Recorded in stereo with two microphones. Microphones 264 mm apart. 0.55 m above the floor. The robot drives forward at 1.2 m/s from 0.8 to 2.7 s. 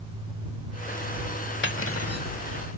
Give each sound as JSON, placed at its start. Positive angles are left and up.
{"t": 1.6, "sound": "cutlery clinking", "side_deg": 45}